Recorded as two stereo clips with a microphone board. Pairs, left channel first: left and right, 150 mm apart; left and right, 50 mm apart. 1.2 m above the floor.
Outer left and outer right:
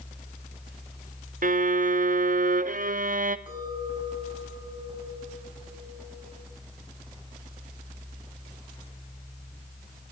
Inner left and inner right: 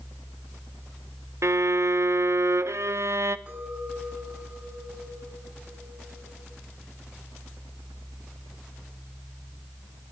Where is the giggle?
No giggle in this recording.